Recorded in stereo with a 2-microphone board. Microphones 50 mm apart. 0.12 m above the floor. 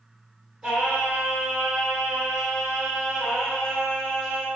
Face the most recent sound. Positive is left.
turn(degrees=-10)  # may be behind; listen again after turning